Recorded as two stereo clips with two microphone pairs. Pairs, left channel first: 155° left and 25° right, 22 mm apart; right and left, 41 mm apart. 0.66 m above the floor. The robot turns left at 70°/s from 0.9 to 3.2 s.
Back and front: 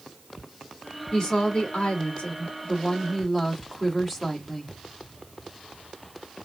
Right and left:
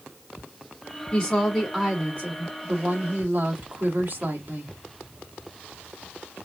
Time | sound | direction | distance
1.1 | a woman speaking | 150° right | 2 m